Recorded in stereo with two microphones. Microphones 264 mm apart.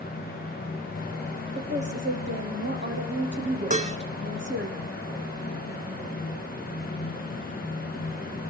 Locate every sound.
1.6 s a woman speaking: 45° right (ahead or behind), 5.5 m
3.7 s dishes clattering: 25° right (ahead or behind), 1.1 m